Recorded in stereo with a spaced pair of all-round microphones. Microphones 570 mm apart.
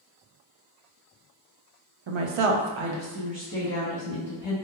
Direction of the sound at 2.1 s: 55° right (ahead or behind).